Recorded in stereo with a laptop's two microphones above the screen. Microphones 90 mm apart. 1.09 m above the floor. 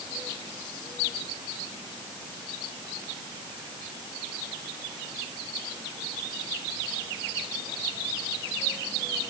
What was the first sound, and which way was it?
Only background noise.